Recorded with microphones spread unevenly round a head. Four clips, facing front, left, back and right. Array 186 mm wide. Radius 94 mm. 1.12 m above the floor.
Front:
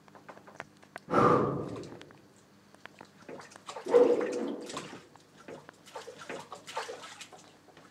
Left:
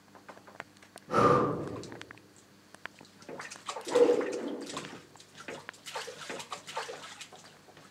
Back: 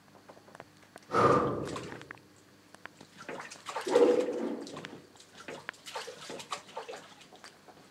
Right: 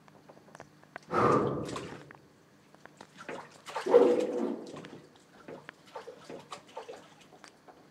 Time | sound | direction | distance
1.1 | breathing | 15° left | 2 m
3.9 | a whoosh | 70° right | 1.0 m